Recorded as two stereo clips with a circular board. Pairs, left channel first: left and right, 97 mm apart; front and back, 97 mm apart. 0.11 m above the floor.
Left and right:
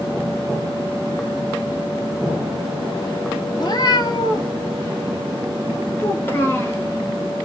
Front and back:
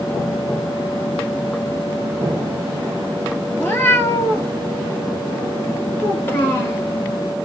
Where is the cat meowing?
60° left, 1.0 m.